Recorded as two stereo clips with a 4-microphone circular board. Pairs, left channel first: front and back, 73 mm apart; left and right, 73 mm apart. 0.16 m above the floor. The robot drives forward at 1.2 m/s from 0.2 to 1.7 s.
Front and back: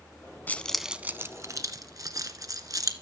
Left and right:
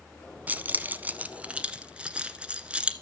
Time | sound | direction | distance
0.5 | keys jangling | 45° right | 0.9 m